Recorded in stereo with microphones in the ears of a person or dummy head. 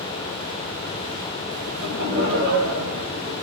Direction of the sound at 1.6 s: 55° right (ahead or behind).